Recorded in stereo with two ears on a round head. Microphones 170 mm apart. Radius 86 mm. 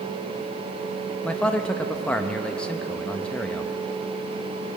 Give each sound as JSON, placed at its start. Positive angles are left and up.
{"t": 1.2, "sound": "a man speaking", "side_deg": 5, "distance_m": 0.6}